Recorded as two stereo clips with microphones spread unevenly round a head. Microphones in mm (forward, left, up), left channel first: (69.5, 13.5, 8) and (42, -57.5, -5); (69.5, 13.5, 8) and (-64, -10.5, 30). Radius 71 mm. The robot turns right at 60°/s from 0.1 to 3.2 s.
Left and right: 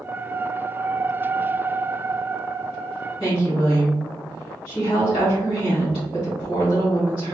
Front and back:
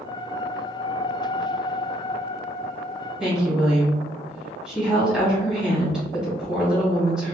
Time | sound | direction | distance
3.2 | a woman speaking | 100° left | 1.4 m